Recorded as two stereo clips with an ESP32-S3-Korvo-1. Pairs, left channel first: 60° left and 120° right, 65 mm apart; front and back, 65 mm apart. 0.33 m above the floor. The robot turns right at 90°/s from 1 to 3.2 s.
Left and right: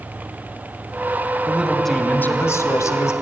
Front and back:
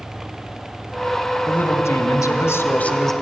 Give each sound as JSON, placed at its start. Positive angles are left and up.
{"t": 1.5, "sound": "a woman speaking", "azimuth_deg": -65, "distance_m": 2.5}